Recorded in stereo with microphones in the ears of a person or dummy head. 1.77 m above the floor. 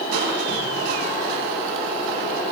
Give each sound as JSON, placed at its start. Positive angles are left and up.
{"t": 0.1, "sound": "crushing", "side_deg": -70, "distance_m": 5.0}